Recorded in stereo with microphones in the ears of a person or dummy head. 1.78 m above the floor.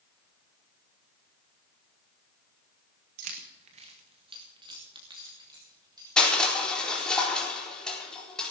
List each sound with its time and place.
3.2 s keys jangling: 40° right (ahead or behind), 1.1 m; by 7.2 s 15° right (ahead or behind), 4.5 m
6.2 s crushing: 5° left (ahead or behind), 4 m